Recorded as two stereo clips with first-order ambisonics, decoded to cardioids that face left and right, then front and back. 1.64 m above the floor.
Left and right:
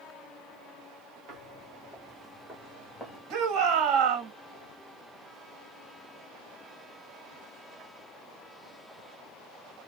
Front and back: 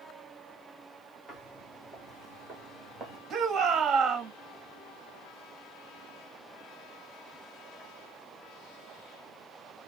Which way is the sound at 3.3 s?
115° right.